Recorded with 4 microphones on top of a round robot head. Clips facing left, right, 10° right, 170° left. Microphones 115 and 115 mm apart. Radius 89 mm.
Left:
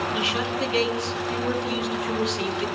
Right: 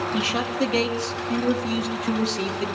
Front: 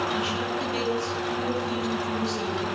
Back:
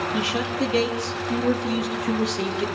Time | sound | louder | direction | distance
0.1 | a man speaking | right 2 dB, back 3 dB | 140° right | 4.5 m